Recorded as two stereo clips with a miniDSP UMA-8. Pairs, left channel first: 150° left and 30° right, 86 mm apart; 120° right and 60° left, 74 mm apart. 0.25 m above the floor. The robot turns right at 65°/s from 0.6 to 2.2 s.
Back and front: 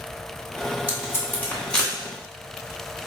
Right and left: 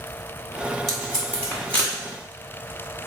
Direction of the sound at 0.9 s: 155° left.